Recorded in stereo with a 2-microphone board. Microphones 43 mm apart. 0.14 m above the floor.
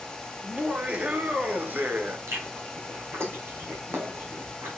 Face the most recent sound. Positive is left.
turn(degrees=-70)  # may be behind; listen again after turning